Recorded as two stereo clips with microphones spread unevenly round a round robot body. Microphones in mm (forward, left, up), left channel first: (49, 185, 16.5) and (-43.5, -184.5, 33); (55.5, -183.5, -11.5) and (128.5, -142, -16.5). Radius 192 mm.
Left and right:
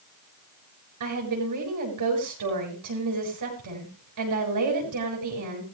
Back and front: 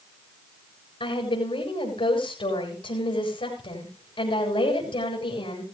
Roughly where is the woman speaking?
Behind right.